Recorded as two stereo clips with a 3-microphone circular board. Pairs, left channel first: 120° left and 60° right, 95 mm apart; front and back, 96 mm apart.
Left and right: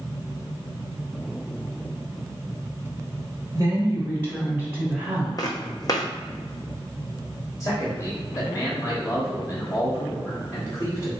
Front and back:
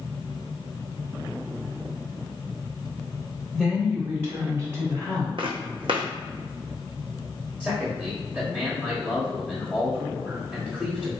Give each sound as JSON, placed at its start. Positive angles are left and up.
{"t": 3.5, "sound": "a woman speaking", "azimuth_deg": -90, "distance_m": 1.1}
{"t": 5.4, "sound": "footsteps", "azimuth_deg": 165, "distance_m": 0.8}
{"t": 7.6, "sound": "a man speaking", "azimuth_deg": 115, "distance_m": 1.3}